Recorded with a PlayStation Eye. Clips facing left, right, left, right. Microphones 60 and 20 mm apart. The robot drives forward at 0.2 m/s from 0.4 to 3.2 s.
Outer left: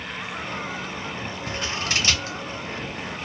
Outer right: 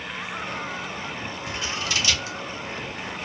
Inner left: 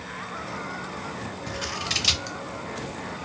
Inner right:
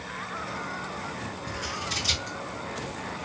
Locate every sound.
1.5 s scissors: 45° left (ahead or behind), 0.7 m; by 2.4 s 35° left (ahead or behind), 0.8 m